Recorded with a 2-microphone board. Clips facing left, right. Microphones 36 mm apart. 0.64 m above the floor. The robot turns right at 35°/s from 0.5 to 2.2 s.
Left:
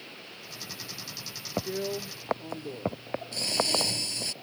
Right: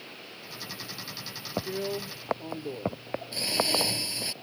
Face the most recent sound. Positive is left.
turn(degrees=-15)  # may be behind; listen again after turning